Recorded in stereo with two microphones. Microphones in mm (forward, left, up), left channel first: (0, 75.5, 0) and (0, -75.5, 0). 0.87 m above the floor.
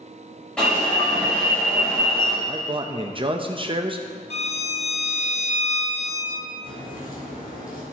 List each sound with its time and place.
0.6 s an alarm: 5° left (ahead or behind), 4 m
2.5 s a man speaking: 35° right (ahead or behind), 0.6 m
4.3 s a violin: 45° left (ahead or behind), 0.6 m
6.6 s a crack: 70° left (ahead or behind), 3.5 m